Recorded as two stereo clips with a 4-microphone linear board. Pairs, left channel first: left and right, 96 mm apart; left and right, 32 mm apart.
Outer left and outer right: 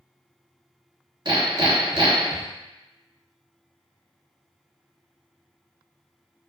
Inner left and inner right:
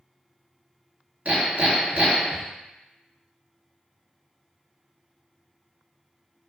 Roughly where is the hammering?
Right.